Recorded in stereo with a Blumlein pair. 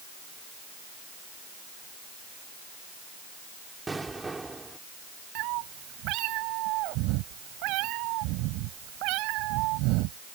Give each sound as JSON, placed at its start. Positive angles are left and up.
{"t": 3.9, "sound": "an explosion", "azimuth_deg": -10}
{"t": 5.3, "sound": "a cat meowing", "azimuth_deg": -40}